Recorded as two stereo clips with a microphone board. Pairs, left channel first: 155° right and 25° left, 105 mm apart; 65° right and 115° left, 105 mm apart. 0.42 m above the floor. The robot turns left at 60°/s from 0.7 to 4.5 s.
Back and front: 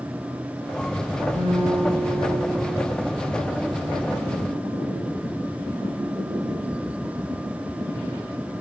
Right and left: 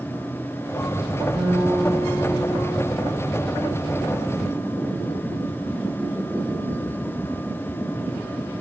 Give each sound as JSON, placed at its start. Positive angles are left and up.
{"t": 1.3, "sound": "a guitar", "azimuth_deg": 25, "distance_m": 3.5}